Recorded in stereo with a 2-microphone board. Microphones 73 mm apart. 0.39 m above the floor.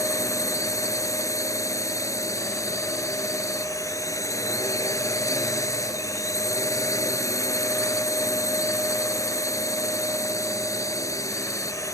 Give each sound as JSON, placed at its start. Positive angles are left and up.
{"t": 0.0, "sound": "a drone", "side_deg": 45}